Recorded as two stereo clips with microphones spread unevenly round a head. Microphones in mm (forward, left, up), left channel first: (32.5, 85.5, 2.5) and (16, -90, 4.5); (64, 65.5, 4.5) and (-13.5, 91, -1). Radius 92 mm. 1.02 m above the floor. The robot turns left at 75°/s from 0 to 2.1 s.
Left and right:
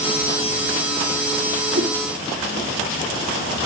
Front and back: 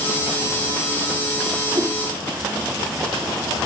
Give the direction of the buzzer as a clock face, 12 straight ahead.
I don't hear a buzzer.